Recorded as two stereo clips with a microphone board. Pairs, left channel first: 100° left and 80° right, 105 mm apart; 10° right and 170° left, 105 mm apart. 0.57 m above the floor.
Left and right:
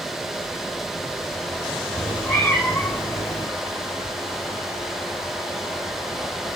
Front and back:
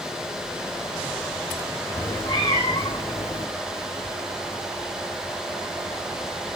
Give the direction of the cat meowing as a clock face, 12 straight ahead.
11 o'clock.